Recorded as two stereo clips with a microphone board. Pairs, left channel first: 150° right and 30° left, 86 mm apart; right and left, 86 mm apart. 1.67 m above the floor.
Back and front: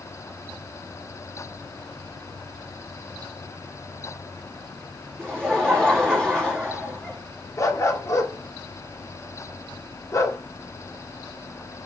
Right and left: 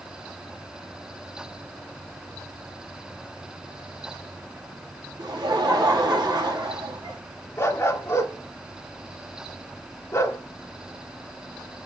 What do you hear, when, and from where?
5.2 s laughter: 130° left, 3 m
7.6 s a dog barking: 130° right, 1.5 m